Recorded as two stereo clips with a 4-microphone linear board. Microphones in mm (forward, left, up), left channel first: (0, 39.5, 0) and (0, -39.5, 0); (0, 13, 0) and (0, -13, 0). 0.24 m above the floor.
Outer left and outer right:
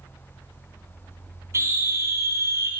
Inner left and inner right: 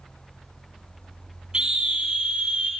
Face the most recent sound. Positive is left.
turn(degrees=-40)  # may be behind; listen again after turning